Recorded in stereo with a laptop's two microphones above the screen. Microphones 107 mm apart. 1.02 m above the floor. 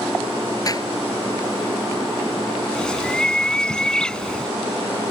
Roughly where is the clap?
Left.